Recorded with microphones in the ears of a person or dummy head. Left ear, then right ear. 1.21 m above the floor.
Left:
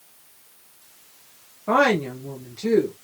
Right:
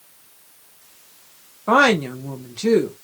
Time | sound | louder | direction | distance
1.7 | a woman speaking | right 4 dB | 25° right (ahead or behind) | 0.8 m